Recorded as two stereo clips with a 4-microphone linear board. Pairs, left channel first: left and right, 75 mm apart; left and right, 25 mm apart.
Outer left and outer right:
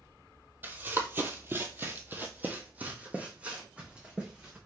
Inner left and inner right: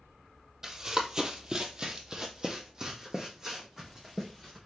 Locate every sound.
0.6 s running footsteps: 25° right (ahead or behind), 1.0 m; by 4.6 s 15° right (ahead or behind), 2.5 m